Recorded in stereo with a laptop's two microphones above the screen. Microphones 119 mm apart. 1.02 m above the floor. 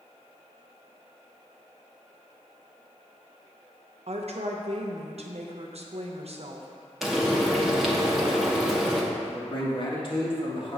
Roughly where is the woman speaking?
Right.